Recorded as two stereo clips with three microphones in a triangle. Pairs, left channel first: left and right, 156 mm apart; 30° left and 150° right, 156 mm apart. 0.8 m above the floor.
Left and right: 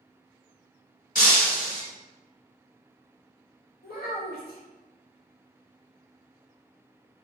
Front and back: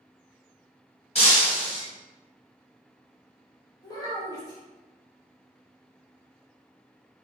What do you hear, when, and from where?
1.1 s breaking glass: 75° left, 1.2 m
3.8 s a child speaking: 95° left, 1.2 m